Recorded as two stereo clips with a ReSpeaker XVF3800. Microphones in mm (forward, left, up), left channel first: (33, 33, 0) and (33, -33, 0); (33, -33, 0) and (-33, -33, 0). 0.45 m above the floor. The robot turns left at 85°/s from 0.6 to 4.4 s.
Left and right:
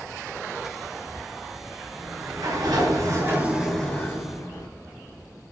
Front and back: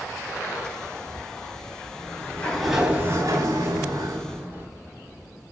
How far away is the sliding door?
About 6.5 m.